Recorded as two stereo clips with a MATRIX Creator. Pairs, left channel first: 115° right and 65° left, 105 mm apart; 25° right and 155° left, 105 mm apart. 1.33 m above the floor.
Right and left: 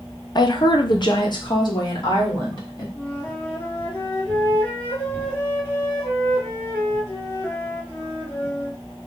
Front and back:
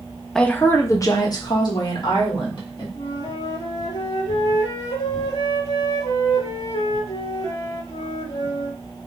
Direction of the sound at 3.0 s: 40° right.